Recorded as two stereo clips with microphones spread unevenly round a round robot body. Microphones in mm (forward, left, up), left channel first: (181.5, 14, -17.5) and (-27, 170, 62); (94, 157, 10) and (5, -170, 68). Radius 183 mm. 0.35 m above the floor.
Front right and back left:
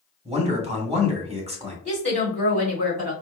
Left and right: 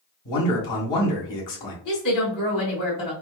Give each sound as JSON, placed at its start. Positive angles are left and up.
{"t": 0.2, "sound": "a man speaking", "azimuth_deg": 70, "distance_m": 1.9}
{"t": 1.9, "sound": "a woman speaking", "azimuth_deg": 70, "distance_m": 2.0}